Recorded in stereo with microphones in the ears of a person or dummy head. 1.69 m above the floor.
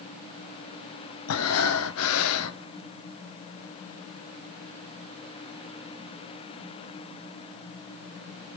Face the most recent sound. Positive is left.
turn(degrees=80)